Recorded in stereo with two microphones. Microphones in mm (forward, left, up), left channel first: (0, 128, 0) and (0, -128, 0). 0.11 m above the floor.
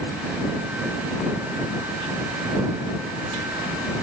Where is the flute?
I don't hear a flute.